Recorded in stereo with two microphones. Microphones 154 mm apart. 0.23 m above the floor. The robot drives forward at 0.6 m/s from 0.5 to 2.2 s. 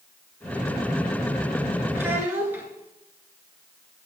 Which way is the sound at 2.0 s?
15° right (ahead or behind).